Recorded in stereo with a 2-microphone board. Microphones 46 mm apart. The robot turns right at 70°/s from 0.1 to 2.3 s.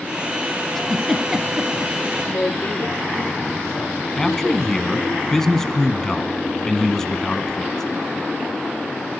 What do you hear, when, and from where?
0.8 s a giggle: 10° left (ahead or behind), 1.3 m; by 2.1 s 30° right (ahead or behind), 1.3 m
2.2 s a woman speaking: 65° left (ahead or behind), 3 m
4.2 s a man speaking: 10° left (ahead or behind), 1.1 m